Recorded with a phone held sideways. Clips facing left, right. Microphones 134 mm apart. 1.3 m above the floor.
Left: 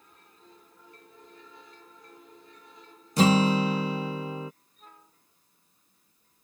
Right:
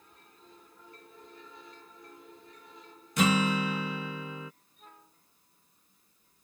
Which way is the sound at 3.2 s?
35° left (ahead or behind).